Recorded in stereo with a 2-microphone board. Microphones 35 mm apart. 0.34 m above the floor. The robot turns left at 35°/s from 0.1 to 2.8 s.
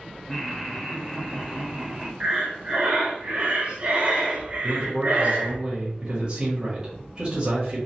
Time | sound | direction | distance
0.3 | laughter | centre (ahead or behind) | 0.9 m
2.2 | breathing | 35° right (ahead or behind) | 0.9 m
4.6 | a man speaking | 30° right (ahead or behind) | 1.6 m